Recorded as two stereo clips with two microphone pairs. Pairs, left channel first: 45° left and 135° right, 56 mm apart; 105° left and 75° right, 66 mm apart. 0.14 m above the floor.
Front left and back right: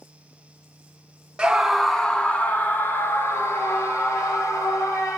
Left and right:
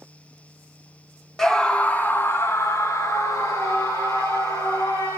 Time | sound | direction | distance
1.4 | a scream | 175° left | 1.2 m